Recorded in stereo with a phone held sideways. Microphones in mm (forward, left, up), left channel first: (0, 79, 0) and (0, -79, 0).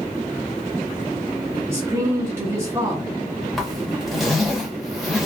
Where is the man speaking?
15° right (ahead or behind), 1.4 m.